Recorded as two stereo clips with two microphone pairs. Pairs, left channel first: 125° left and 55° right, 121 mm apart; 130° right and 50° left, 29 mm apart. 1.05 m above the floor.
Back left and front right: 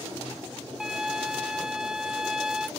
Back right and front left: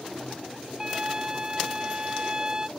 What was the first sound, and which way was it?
A flute, 25° left.